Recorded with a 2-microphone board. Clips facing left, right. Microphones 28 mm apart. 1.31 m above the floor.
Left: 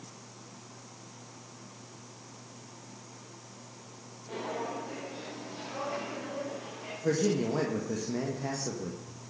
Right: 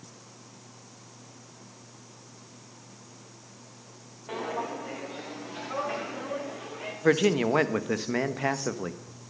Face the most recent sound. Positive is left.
turn(degrees=-70)  # may be behind; listen again after turning